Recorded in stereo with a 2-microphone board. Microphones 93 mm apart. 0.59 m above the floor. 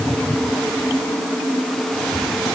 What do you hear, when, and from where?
Only background noise.